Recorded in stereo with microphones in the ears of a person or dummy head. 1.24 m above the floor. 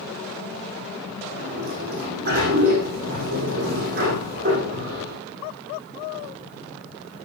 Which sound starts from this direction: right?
A sliding door, at 1.3 s.